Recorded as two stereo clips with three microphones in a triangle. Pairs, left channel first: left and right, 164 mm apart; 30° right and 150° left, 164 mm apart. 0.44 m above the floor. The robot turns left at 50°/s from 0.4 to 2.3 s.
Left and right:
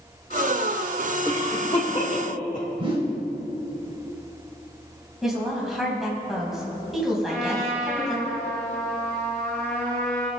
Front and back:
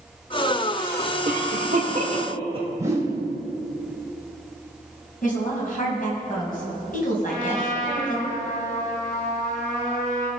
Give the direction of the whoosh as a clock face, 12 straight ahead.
5 o'clock.